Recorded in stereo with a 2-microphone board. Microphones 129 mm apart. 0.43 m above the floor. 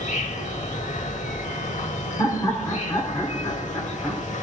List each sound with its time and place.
0.0 s an insect: 70° left (ahead or behind), 0.8 m
2.2 s laughter: 25° left (ahead or behind), 1.2 m